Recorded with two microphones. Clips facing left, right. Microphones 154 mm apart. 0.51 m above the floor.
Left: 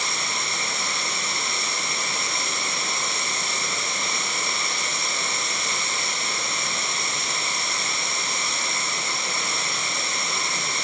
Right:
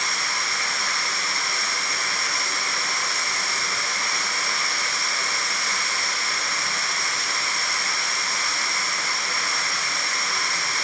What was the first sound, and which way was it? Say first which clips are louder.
Running water: even; 25° left (ahead or behind).